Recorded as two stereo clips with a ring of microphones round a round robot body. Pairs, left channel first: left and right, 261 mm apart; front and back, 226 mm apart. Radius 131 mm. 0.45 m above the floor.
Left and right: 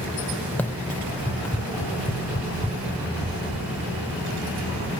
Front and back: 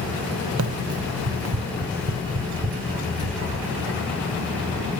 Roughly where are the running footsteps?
Behind.